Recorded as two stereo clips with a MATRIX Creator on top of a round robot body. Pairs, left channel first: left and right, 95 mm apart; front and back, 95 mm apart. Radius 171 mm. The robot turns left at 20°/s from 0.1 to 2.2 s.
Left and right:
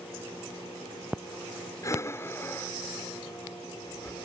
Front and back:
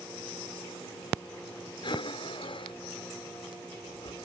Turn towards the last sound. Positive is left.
turn(degrees=25)